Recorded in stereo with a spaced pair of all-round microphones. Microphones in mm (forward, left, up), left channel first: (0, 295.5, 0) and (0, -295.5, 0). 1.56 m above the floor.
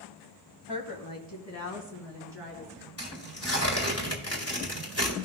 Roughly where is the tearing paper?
Left.